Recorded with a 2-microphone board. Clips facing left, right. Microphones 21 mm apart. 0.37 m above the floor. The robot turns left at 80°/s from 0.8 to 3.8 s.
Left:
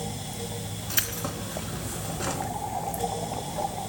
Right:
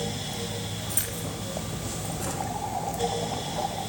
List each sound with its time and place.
0.9 s keys jangling: 135° left, 3.5 m; by 2.5 s 5° left, 3.5 m